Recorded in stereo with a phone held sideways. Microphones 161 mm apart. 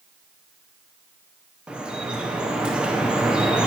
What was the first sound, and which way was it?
Dripping, 5° right (ahead or behind).